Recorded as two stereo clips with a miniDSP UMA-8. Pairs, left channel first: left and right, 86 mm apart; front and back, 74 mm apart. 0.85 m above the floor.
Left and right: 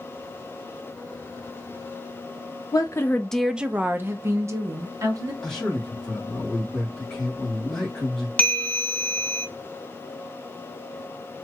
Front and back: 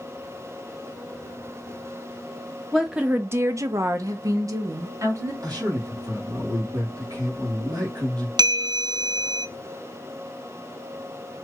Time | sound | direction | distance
2.7 | a woman speaking | 90° left | 0.6 m
5.4 | a man speaking | 175° left | 2 m
8.4 | a bell | 165° left | 0.6 m